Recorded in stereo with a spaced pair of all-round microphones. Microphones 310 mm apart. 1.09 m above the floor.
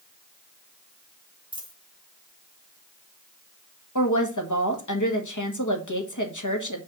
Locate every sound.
1.5 s a dropped coin: 15° right (ahead or behind), 1.8 m
4.0 s a woman speaking: 65° left (ahead or behind), 1.7 m